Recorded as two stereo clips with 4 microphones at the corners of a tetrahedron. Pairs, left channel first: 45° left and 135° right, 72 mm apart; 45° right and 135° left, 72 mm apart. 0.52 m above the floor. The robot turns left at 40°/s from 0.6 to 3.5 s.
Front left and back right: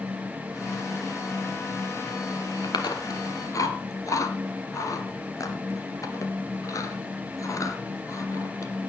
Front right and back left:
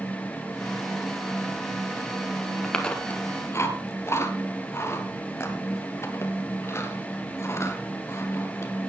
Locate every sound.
2.6 s chewing: 40° left, 1.9 m; by 8.7 s 5° left, 1.9 m